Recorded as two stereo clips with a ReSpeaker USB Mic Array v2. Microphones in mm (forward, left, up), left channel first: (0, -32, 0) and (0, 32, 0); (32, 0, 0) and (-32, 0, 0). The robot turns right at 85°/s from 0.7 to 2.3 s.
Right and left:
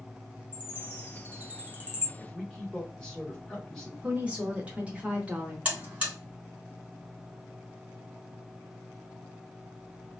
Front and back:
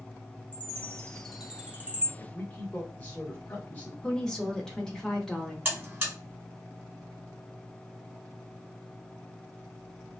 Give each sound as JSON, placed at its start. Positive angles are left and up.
{"t": 0.5, "sound": "a chime", "azimuth_deg": 40, "distance_m": 0.9}
{"t": 2.2, "sound": "a man speaking", "azimuth_deg": -25, "distance_m": 0.9}
{"t": 4.0, "sound": "a woman speaking", "azimuth_deg": 65, "distance_m": 0.8}
{"t": 5.7, "sound": "a buzzer", "azimuth_deg": 140, "distance_m": 1.7}